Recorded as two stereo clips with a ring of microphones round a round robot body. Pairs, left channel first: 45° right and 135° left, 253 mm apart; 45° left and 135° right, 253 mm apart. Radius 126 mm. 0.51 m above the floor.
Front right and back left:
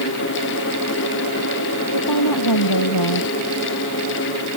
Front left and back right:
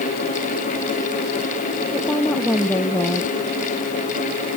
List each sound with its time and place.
1.9 s a woman speaking: 40° right